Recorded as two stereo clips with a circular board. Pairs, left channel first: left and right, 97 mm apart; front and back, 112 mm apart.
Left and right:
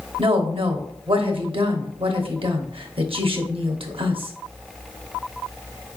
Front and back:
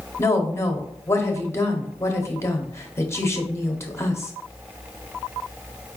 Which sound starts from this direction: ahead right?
A woman speaking, at 0.2 s.